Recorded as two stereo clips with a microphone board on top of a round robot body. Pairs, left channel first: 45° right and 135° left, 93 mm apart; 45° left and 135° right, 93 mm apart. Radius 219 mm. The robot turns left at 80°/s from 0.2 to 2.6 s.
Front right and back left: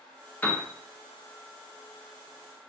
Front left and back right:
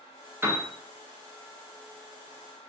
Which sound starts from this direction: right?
A piano, at 0.4 s.